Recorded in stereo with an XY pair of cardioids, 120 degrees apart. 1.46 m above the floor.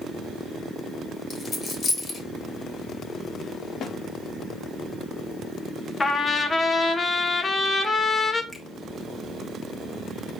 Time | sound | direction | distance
1.3 | a dropped coin | 20° left | 3 m
3.8 | a snare drum | 55° left | 0.9 m
6.0 | a trumpet | 25° left | 1.3 m
8.5 | a finger snap | straight ahead | 2.5 m